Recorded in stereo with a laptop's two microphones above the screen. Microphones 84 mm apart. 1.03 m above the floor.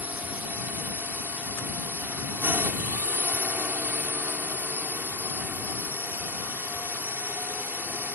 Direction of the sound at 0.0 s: 20° right (ahead or behind).